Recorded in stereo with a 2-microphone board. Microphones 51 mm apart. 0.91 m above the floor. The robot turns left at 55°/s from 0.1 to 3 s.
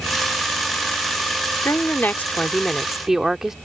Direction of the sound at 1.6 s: 65° left.